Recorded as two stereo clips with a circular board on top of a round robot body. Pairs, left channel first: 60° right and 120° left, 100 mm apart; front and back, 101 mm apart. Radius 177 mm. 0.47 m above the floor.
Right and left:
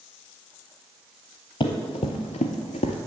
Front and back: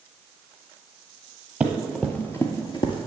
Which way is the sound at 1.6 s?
100° right.